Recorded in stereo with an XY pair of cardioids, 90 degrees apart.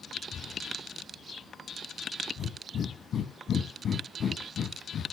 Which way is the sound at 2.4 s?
65° left.